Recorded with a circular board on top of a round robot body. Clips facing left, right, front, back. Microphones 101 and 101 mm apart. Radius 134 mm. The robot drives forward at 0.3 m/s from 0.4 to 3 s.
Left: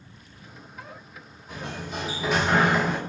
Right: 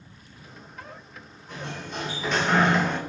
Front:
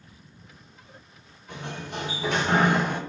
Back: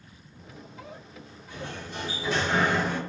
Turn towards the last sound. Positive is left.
turn(degrees=5)